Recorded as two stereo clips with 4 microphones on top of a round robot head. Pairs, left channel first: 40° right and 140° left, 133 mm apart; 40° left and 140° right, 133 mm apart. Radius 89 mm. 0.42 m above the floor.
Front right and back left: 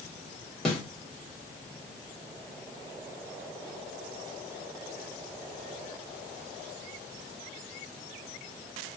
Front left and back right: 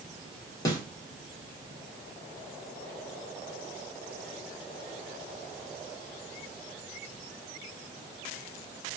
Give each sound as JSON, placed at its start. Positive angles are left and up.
{"t": 0.7, "sound": "a snare drum", "azimuth_deg": 40, "distance_m": 1.5}